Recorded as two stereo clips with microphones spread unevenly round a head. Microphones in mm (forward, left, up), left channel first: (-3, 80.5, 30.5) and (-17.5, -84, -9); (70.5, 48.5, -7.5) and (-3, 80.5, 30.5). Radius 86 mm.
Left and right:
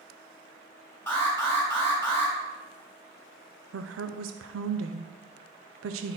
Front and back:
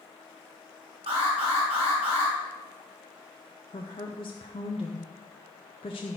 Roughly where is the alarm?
Behind.